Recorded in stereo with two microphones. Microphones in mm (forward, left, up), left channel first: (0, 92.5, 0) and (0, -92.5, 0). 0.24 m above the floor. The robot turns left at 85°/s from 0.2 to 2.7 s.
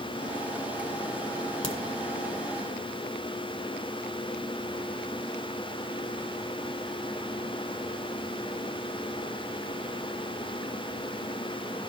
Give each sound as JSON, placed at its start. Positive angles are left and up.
{"t": 1.6, "sound": "a crack", "side_deg": 30, "distance_m": 1.2}